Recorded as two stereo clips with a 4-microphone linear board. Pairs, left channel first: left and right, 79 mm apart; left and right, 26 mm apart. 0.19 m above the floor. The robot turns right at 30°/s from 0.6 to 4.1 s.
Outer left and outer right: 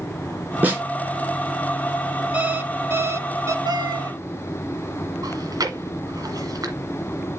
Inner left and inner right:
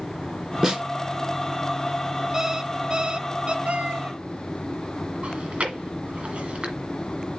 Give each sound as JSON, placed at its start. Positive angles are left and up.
{"t": 0.6, "sound": "a snare drum", "side_deg": -25, "distance_m": 2.5}
{"t": 2.3, "sound": "an alarm clock", "azimuth_deg": -150, "distance_m": 0.9}
{"t": 3.6, "sound": "a cat meowing", "side_deg": -75, "distance_m": 0.8}
{"t": 5.2, "sound": "chewing", "side_deg": -55, "distance_m": 2.0}